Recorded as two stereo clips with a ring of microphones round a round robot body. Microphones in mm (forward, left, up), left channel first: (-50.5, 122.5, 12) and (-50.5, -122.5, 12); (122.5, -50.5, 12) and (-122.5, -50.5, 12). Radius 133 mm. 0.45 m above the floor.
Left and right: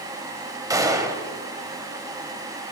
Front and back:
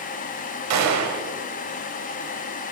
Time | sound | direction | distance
0.7 | a gunshot | 165° right | 0.9 m